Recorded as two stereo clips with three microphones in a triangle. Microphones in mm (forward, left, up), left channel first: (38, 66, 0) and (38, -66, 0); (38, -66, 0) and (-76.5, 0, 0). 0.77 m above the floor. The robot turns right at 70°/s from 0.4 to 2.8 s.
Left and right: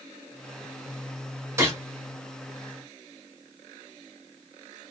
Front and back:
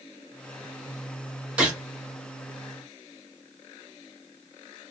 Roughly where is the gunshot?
Behind right.